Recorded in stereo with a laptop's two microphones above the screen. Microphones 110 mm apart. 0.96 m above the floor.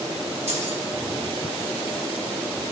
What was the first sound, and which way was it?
Keys jangling, 85° right.